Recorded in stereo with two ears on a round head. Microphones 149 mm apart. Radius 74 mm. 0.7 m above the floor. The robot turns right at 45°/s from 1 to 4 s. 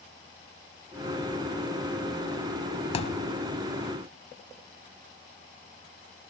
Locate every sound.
2.9 s a thud: 35° left (ahead or behind), 0.9 m; by 3.3 s 50° left (ahead or behind), 0.9 m